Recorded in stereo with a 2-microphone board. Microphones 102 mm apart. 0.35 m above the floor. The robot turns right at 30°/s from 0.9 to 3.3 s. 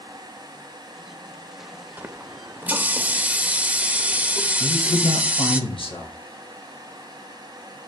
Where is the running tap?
20° right (ahead or behind), 0.5 m; by 5.6 s 15° right (ahead or behind), 0.5 m.